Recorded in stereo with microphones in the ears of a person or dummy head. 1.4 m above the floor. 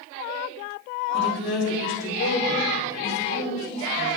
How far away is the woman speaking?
About 3.5 m.